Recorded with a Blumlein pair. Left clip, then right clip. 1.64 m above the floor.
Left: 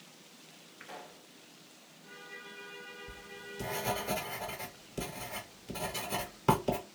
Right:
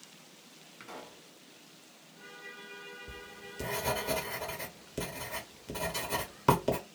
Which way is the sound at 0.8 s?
70° right.